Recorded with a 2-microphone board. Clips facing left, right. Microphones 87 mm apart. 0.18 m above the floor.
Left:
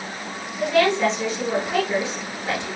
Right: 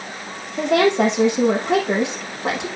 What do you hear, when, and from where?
0.6 s a woman speaking: 75° right (ahead or behind), 6.5 m